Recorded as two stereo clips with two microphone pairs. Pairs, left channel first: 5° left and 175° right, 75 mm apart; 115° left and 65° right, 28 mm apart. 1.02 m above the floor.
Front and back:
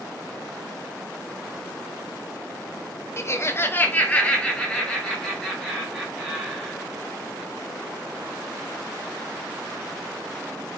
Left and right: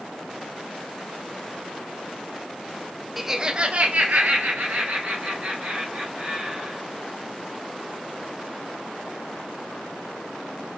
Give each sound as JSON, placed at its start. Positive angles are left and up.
{"t": 3.2, "sound": "laughter", "azimuth_deg": 20, "distance_m": 0.5}